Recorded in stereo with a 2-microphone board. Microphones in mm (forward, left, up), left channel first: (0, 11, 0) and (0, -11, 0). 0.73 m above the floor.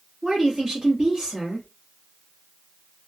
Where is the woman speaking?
35° right (ahead or behind), 1.2 m.